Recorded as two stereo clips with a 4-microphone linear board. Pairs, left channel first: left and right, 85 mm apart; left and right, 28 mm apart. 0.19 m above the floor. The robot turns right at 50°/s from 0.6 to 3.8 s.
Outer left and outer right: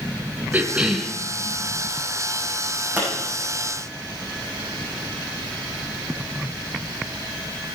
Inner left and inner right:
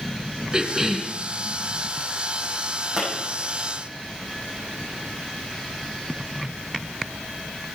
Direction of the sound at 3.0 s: 20° right (ahead or behind).